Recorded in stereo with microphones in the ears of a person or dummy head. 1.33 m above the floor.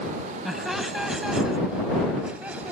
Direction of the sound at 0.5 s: 5° left (ahead or behind).